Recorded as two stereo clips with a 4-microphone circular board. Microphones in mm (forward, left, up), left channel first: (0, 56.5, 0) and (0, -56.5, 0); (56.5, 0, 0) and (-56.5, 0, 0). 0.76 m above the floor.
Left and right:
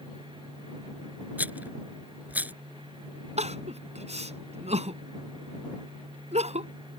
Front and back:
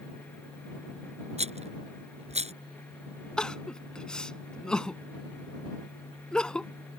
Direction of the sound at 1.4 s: 165° right.